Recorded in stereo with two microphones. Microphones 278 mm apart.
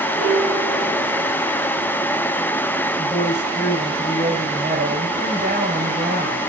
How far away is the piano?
About 1.8 m.